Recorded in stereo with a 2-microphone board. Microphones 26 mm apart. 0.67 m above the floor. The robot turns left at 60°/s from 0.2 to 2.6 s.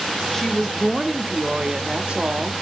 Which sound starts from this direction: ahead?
A woman speaking, at 0.3 s.